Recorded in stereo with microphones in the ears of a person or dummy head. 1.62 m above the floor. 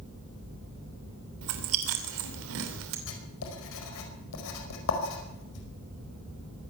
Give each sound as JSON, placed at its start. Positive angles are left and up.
{"t": 1.4, "sound": "chewing", "side_deg": -70, "distance_m": 3.0}
{"t": 3.1, "sound": "writing", "side_deg": 75, "distance_m": 4.5}